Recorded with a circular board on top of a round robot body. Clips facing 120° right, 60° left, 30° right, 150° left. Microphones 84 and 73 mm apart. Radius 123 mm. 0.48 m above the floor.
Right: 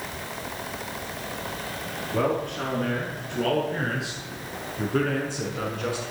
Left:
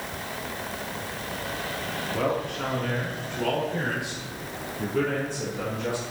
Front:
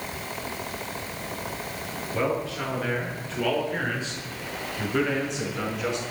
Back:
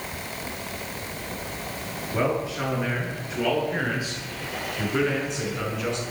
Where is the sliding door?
No sliding door in this recording.